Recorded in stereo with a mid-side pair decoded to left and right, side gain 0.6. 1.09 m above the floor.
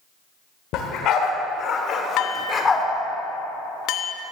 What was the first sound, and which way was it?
A dog barking, 65° left.